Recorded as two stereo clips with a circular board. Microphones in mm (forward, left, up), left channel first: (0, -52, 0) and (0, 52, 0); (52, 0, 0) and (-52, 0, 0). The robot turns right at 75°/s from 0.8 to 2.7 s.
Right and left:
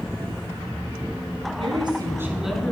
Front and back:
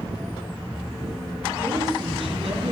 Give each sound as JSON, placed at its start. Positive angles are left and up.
{"t": 1.6, "sound": "a woman speaking", "azimuth_deg": 110, "distance_m": 3.5}